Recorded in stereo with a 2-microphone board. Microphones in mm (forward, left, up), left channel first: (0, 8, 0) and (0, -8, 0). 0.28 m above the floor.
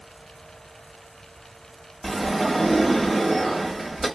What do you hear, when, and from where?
2.0 s a sliding door: 5° right (ahead or behind), 1.2 m